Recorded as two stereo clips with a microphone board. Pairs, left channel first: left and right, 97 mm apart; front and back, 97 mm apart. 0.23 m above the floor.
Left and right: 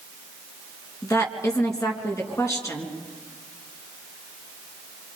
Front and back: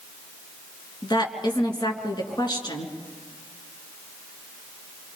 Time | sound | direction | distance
1.0 | a woman speaking | 35° left | 3.5 m